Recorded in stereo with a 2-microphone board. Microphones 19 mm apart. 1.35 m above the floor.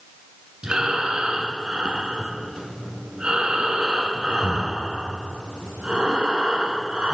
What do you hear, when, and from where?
0.6 s breathing: 55° right (ahead or behind), 2.5 m